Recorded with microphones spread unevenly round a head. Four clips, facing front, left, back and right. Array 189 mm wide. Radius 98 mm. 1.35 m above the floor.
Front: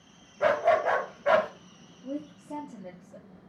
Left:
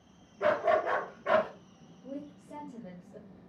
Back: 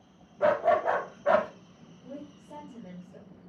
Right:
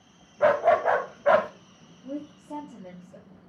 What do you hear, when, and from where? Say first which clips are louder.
0.4 s a dog barking: right 6 dB, front 1 dB; 65° right, 1.6 m
2.0 s a woman speaking: right 6 dB, front 7 dB; 40° right, 3.5 m